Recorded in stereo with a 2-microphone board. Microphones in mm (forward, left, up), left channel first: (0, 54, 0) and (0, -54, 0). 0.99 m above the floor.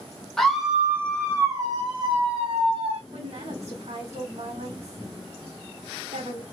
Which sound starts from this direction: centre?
A scream, at 0.4 s.